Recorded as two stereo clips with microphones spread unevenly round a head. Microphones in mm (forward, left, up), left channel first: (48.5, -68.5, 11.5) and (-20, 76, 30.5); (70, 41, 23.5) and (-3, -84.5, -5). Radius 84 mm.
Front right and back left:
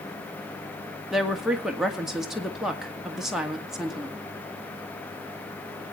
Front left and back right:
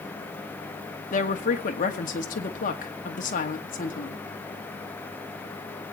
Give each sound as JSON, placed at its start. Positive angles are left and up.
{"t": 1.1, "sound": "a woman speaking", "azimuth_deg": 25, "distance_m": 2.0}